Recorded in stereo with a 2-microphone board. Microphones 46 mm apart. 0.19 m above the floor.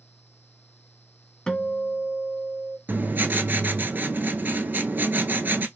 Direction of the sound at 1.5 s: 15° left (ahead or behind).